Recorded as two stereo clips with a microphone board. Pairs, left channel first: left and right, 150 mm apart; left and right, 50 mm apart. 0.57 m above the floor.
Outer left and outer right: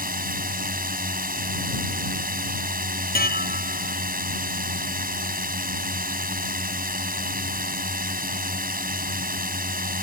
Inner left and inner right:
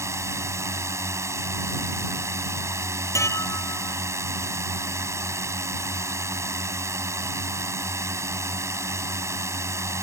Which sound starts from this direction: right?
A drone, at 0.0 s.